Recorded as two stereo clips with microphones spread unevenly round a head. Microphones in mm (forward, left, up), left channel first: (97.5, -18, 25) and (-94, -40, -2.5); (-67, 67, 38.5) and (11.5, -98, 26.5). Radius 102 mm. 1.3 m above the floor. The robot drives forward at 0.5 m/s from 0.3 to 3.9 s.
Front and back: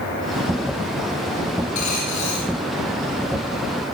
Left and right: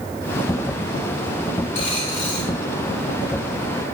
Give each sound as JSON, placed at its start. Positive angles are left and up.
{"t": 1.8, "sound": "a dropped coin", "azimuth_deg": 60, "distance_m": 4.0}